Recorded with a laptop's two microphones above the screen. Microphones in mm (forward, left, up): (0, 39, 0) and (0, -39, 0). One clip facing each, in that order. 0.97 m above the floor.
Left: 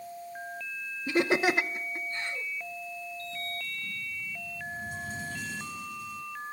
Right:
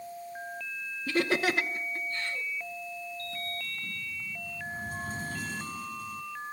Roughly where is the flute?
I don't hear a flute.